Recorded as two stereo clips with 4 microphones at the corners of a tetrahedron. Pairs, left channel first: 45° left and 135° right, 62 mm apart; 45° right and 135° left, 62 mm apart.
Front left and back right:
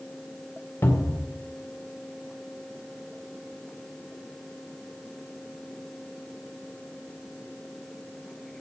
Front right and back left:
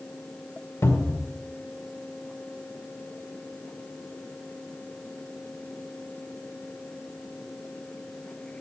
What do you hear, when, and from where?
0.8 s a cupboard door: 5° right, 1.9 m